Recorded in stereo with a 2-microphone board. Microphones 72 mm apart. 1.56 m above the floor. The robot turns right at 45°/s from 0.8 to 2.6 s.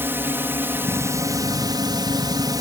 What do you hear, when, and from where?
0.0 s a drone: 150° right; by 2.6 s 70° right